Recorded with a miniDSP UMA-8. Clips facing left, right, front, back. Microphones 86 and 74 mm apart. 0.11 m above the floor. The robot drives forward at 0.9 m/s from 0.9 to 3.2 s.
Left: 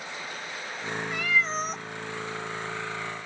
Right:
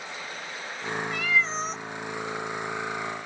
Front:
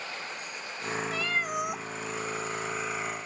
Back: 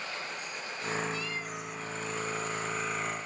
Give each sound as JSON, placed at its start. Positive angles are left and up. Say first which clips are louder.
{"t": 1.1, "sound": "a cat meowing", "louder": "even, front 6 dB", "azimuth_deg": 0, "distance_m": 1.2}